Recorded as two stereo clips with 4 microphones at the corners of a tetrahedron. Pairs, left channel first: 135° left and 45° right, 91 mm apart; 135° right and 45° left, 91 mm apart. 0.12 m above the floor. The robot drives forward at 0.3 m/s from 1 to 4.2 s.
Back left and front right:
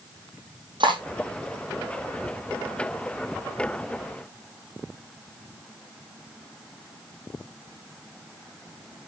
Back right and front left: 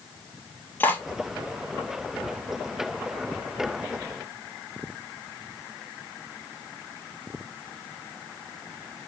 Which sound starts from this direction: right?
Cutlery clinking, at 0.8 s.